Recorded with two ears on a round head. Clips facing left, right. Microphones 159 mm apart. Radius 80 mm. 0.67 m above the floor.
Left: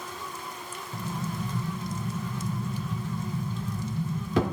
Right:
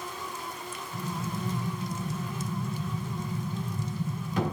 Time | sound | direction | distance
0.9 | an explosion | 55° left (ahead or behind) | 0.9 m